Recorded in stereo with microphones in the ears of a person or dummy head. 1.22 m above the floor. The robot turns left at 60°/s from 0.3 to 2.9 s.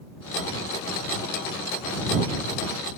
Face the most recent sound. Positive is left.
No sound to turn to.